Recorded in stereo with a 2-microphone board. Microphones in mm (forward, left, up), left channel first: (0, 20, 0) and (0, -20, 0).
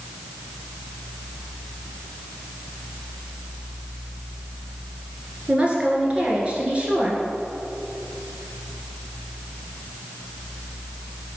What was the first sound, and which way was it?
A woman speaking, 30° right (ahead or behind).